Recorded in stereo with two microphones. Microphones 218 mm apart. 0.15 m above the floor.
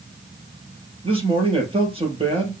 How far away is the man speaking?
About 4 m.